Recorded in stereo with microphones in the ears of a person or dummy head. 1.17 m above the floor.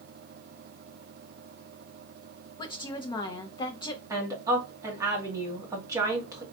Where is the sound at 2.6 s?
25° left (ahead or behind), 0.6 m.